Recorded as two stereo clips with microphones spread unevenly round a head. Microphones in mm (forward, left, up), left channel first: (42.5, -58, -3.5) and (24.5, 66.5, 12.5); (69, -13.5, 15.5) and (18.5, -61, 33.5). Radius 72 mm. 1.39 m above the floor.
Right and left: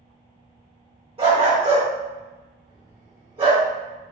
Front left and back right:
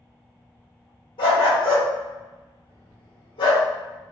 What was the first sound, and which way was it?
A dog barking, 65° left.